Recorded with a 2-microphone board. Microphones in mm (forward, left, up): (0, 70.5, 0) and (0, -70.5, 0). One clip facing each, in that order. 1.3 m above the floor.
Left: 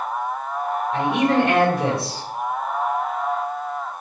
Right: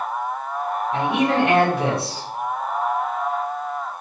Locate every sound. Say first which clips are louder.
0.9 s a man speaking: left 1 dB; 75° right (ahead or behind), 1.7 m